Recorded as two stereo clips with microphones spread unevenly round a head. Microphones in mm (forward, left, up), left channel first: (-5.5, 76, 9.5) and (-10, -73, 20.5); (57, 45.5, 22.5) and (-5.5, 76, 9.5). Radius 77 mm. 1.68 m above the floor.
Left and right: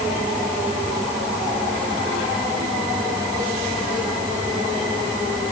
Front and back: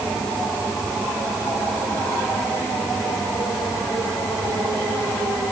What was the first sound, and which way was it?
Only background noise.